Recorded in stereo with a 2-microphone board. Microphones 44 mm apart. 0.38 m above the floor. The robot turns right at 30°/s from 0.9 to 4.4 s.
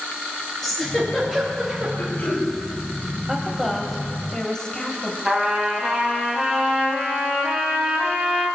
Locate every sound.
0.6 s a giggle: 10° left (ahead or behind), 5.5 m; by 1.9 s 20° right (ahead or behind), 5.5 m
2.0 s throat clearing: 60° left (ahead or behind), 4 m; by 2.5 s 45° left (ahead or behind), 4 m
3.3 s a woman speaking: 15° right, 2.5 m; by 5.2 s 20° left, 2.5 m
5.2 s a trumpet: 20° right (ahead or behind), 2.5 m